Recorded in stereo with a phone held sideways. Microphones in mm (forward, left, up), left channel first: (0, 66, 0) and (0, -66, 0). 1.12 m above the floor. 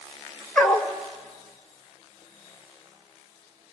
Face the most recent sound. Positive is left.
turn(degrees=5)  # may be behind; listen again after turning